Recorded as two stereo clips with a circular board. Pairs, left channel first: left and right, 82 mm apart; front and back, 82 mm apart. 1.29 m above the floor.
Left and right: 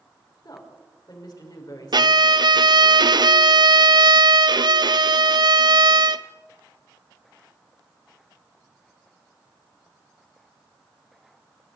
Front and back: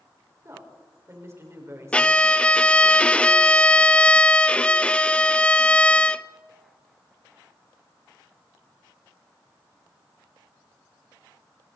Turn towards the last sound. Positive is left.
turn(degrees=-75)